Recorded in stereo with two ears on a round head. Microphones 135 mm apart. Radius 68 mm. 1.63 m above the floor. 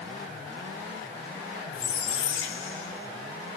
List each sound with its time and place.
1.7 s a squeak: 80° left, 3.5 m